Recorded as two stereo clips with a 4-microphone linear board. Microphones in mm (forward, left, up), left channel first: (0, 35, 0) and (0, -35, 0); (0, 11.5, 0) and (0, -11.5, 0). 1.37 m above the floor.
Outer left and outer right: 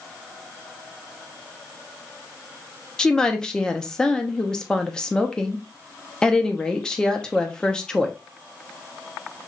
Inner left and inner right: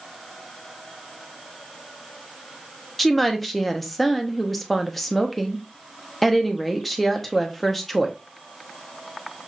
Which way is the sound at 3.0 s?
10° left (ahead or behind).